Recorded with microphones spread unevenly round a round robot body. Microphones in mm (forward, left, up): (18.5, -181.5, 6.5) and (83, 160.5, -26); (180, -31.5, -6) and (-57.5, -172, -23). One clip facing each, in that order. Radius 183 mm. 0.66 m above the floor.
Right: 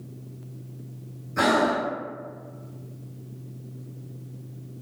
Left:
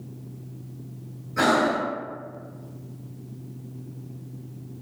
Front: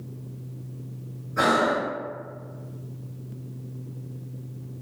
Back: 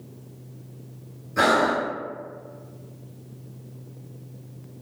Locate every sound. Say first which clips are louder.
1.4 s breathing: even, back 1 dB; straight behind, 0.9 m